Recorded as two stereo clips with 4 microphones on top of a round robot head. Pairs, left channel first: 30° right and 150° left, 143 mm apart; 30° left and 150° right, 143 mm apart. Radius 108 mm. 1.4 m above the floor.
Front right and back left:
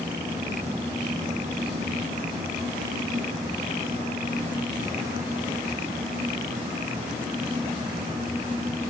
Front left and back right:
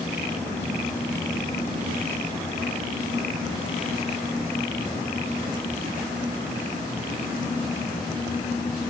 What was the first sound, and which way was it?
Only background noise.